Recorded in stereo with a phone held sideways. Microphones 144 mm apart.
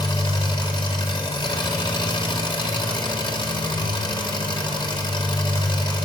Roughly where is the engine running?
Left.